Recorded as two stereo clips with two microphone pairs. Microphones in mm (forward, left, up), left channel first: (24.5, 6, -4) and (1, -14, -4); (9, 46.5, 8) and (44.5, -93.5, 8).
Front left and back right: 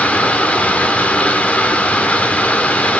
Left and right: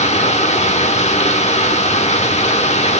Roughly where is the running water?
Left.